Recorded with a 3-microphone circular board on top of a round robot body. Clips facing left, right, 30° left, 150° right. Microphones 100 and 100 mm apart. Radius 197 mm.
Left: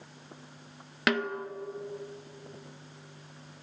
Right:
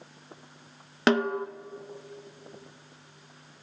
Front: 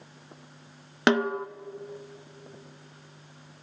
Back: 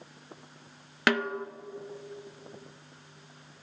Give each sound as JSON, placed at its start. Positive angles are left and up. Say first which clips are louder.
{"t": 1.1, "sound": "a snare drum", "louder": "right 5 dB, front 4 dB", "azimuth_deg": -35, "distance_m": 0.7}